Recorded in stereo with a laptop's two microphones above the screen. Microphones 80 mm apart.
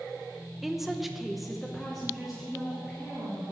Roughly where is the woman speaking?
Centre.